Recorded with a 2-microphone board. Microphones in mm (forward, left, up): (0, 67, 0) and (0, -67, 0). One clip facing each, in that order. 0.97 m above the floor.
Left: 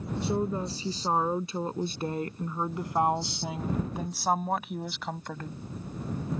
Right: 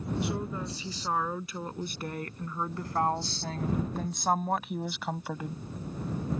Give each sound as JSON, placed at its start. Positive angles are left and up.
{"t": 0.2, "sound": "a woman speaking", "side_deg": 30}